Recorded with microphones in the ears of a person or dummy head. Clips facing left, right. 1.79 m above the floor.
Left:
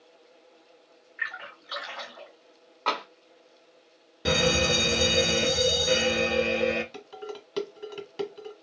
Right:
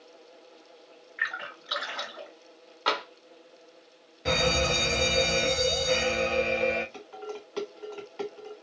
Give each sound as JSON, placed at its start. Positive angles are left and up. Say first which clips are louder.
{"t": 1.2, "sound": "a splash", "louder": "right 2 dB", "side_deg": -50, "distance_m": 2.0}
{"t": 2.9, "sound": "tapping", "louder": "right 1 dB", "side_deg": -15, "distance_m": 0.8}
{"t": 4.2, "sound": "a fire alarm", "louder": "left 2 dB", "side_deg": 60, "distance_m": 1.0}
{"t": 6.9, "sound": "dishes clattering", "louder": "even", "side_deg": 45, "distance_m": 1.6}